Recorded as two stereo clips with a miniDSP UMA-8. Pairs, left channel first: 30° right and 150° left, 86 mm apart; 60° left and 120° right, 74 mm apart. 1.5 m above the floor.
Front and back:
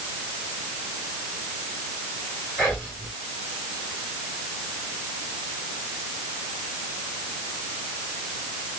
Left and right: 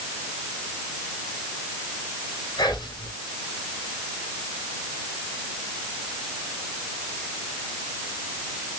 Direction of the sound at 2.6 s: 60° left.